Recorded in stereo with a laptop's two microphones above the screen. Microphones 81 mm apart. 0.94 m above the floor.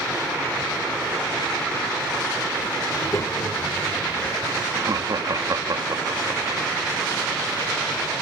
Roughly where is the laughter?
Right.